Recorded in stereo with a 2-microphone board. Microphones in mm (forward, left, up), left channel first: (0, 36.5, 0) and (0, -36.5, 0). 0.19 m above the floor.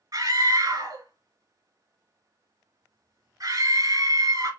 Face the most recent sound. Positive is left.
turn(degrees=-50)  # may be behind; listen again after turning